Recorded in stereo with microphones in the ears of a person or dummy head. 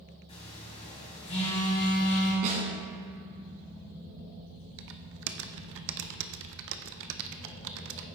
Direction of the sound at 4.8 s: 60° right (ahead or behind).